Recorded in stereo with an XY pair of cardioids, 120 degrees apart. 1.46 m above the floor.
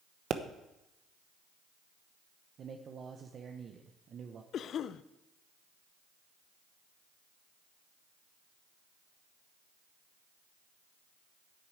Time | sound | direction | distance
0.3 | a pop | 55° right | 1.1 m
2.6 | a man speaking | 45° right | 1.1 m
4.5 | a cough | 55° left | 0.7 m